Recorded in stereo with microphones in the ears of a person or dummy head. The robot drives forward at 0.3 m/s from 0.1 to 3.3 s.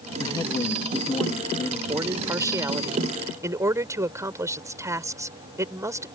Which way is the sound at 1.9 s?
20° right (ahead or behind).